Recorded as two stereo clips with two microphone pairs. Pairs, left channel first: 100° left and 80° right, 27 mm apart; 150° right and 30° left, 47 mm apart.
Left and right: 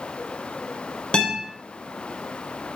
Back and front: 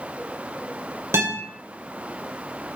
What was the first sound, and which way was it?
A guitar, 45° left.